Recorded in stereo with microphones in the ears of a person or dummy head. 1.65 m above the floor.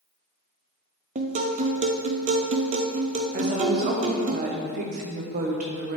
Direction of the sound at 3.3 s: 45° right (ahead or behind).